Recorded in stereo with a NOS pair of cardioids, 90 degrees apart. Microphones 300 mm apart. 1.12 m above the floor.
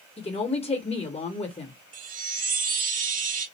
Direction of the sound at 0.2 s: 20° left.